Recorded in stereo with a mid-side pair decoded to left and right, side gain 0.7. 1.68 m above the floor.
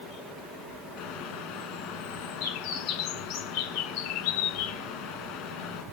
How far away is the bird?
About 1.8 m.